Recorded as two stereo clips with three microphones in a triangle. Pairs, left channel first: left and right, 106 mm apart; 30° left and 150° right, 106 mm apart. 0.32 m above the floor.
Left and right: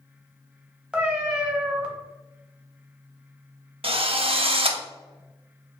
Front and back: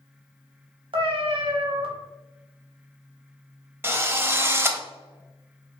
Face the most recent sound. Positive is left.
turn(degrees=-85)